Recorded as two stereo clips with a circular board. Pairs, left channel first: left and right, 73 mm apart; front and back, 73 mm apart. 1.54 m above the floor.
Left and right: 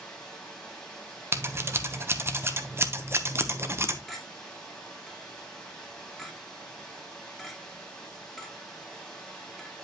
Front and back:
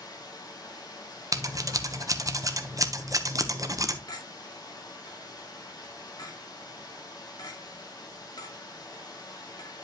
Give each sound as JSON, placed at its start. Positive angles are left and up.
{"t": 0.0, "sound": "running water", "azimuth_deg": 10, "distance_m": 3.5}
{"t": 1.3, "sound": "scissors", "azimuth_deg": -145, "distance_m": 0.9}
{"t": 4.1, "sound": "a clink", "azimuth_deg": 0, "distance_m": 2.0}